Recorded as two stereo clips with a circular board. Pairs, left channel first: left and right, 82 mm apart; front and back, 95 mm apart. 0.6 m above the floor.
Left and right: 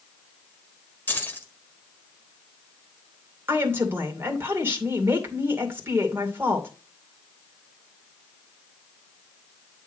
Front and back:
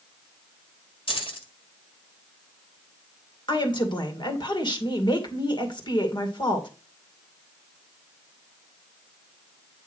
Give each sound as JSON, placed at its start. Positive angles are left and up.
{"t": 1.1, "sound": "keys jangling", "azimuth_deg": 20, "distance_m": 1.7}
{"t": 3.5, "sound": "a woman speaking", "azimuth_deg": -30, "distance_m": 2.5}